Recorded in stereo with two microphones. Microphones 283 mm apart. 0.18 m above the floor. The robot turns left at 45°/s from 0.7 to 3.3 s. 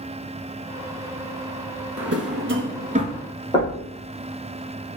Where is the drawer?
60° right (ahead or behind), 0.9 m; by 3.2 s 15° right (ahead or behind), 0.9 m.